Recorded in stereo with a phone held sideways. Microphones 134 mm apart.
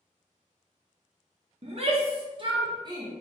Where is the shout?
50° right (ahead or behind), 0.8 m; by 3.1 s 30° right (ahead or behind), 1.3 m.